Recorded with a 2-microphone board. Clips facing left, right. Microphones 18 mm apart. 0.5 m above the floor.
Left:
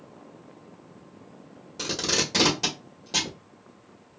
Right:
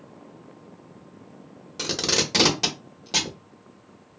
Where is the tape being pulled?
30° right (ahead or behind), 1.0 m.